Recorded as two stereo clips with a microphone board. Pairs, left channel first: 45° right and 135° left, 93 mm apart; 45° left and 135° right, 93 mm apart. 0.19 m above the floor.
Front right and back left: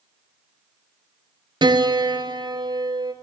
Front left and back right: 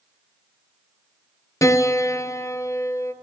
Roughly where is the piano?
Left.